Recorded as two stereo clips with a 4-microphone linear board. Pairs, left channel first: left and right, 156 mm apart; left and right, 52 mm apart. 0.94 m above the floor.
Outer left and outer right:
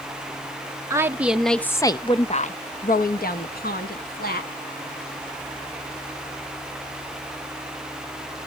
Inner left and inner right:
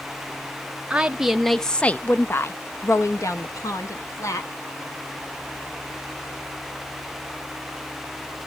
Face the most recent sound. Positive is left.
turn(degrees=70)  # may be behind; listen again after turning